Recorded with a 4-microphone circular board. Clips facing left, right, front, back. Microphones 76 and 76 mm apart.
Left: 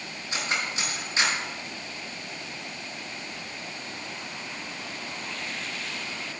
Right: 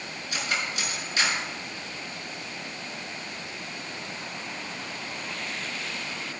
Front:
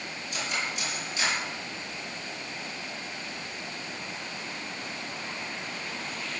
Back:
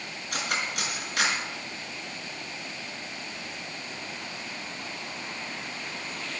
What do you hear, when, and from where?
0.3 s cutlery clinking: 150° left, 5 m